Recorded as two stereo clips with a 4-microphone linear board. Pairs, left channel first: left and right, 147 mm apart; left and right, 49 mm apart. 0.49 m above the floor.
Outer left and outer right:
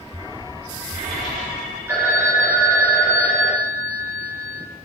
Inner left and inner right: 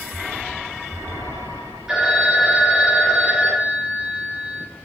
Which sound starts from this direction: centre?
A phone ringing, at 1.9 s.